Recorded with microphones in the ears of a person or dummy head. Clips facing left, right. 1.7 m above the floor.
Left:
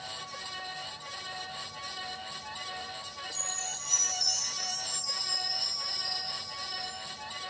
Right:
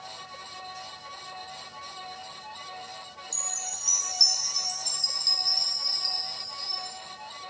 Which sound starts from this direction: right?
A chime, at 3.3 s.